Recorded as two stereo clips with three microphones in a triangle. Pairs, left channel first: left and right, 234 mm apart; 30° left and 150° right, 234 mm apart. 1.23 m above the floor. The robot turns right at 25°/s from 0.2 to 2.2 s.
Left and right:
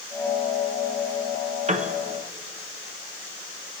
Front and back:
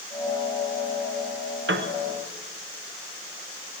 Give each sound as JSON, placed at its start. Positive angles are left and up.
{"t": 1.7, "sound": "a piano", "azimuth_deg": -145, "distance_m": 0.7}